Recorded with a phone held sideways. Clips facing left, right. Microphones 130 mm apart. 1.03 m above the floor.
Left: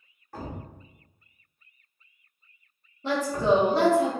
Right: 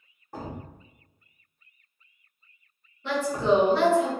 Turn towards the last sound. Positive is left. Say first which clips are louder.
# even
turn(degrees=40)  # may be behind; listen again after turning